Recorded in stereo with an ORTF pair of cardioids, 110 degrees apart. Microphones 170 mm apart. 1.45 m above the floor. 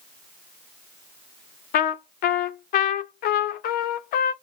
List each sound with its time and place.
1.7 s a trumpet: 60° left, 0.5 m